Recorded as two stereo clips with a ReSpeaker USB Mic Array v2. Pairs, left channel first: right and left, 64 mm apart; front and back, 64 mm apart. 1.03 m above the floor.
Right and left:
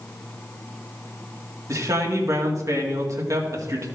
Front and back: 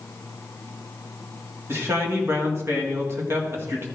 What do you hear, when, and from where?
1.7 s a man speaking: 130° left, 1.9 m